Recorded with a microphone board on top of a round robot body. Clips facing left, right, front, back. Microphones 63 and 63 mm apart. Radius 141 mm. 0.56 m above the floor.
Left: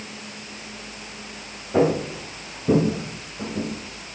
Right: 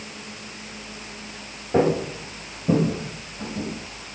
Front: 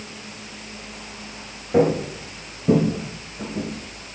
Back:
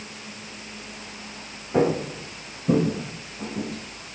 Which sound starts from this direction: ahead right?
Footsteps, at 1.7 s.